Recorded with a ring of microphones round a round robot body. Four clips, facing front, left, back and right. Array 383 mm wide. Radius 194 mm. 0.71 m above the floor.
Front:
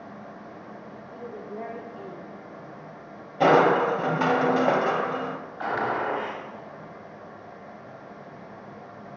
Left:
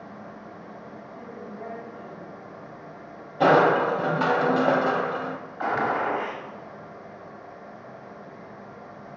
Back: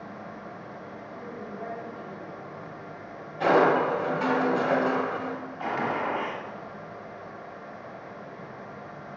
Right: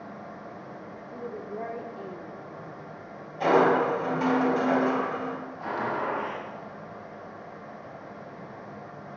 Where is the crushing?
50° left, 2.5 m.